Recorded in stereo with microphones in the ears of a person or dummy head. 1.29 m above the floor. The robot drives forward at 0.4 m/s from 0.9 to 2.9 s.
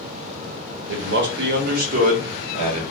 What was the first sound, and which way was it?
A man speaking, 55° right (ahead or behind).